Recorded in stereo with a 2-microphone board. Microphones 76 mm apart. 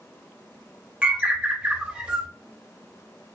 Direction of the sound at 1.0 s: 15° right (ahead or behind).